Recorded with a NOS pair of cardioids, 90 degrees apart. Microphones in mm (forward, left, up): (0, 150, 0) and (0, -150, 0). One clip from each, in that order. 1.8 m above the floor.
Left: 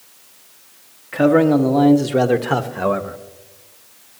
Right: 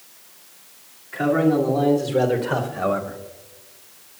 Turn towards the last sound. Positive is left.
turn(degrees=20)